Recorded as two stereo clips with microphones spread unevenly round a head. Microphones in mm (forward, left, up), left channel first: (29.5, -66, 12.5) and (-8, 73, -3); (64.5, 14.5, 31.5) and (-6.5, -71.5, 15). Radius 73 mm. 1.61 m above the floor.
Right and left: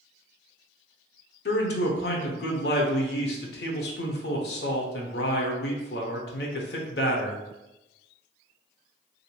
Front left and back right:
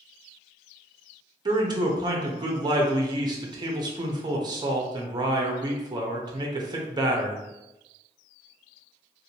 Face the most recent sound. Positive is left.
turn(degrees=-75)